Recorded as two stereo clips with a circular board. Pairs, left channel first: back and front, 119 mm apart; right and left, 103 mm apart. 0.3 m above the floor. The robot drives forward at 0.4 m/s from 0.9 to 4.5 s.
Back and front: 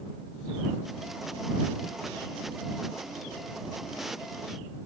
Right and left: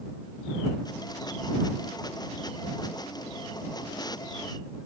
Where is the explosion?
No explosion in this recording.